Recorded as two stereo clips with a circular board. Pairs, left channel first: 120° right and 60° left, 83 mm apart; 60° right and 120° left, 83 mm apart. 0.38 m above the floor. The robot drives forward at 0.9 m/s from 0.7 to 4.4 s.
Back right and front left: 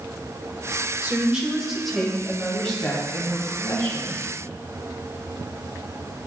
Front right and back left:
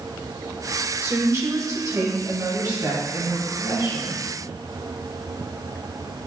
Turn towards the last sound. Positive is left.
turn(degrees=170)